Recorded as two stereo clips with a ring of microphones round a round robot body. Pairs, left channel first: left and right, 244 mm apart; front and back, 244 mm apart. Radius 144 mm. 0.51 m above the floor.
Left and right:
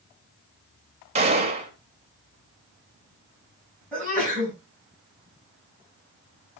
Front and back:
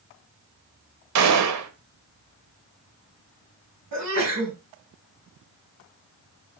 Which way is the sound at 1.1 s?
155° right.